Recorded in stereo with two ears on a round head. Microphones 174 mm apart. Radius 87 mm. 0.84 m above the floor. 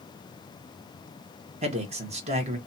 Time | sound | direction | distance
1.6 | a man speaking | 35° right (ahead or behind) | 0.8 m